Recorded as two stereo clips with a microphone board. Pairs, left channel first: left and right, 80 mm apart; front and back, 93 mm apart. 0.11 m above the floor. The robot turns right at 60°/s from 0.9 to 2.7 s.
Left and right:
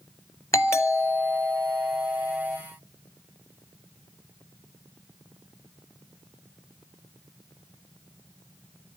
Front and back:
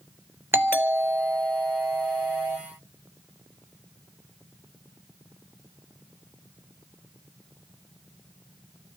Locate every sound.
0.5 s a doorbell: 125° left, 2.5 m; by 2.6 s 135° right, 2.5 m